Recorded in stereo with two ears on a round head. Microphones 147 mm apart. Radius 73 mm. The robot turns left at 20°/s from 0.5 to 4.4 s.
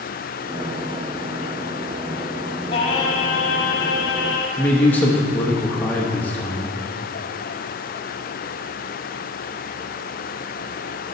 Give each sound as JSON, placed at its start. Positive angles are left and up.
{"t": 2.7, "sound": "singing", "azimuth_deg": 145, "distance_m": 1.4}
{"t": 4.6, "sound": "a man speaking", "side_deg": 10, "distance_m": 0.9}